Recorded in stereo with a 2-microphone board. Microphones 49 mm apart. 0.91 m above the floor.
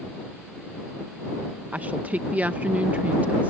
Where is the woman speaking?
30° right (ahead or behind).